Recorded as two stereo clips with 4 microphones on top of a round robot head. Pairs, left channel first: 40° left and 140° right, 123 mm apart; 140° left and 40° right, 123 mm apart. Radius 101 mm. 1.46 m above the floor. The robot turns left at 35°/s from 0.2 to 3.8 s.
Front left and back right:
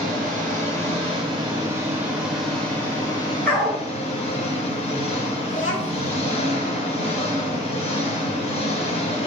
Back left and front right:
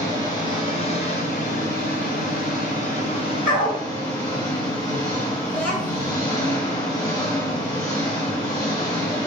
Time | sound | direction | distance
0.0 | an engine running | 155° right | 4 m
3.5 | a dog barking | 115° left | 4 m
5.5 | a child speaking | 65° left | 5.5 m